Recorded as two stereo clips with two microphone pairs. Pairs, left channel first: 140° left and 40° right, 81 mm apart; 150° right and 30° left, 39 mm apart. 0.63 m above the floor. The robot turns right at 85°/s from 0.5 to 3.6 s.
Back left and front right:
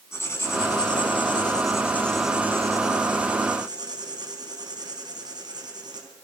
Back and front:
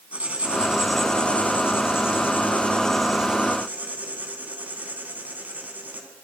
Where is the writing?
85° left, 4 m; by 6.1 s 10° right, 4 m.